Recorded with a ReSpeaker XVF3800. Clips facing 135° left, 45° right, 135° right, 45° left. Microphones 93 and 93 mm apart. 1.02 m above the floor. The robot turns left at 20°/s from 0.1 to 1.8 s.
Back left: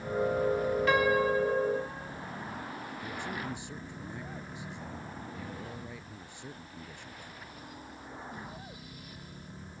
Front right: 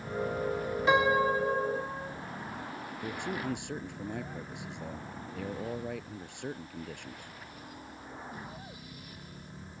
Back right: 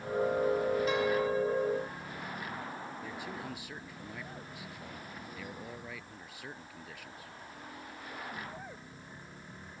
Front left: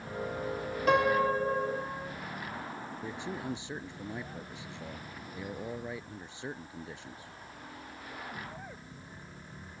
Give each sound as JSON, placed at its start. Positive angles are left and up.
{"t": 0.9, "sound": "a piano", "azimuth_deg": 25}
{"t": 3.0, "sound": "a man speaking", "azimuth_deg": -20}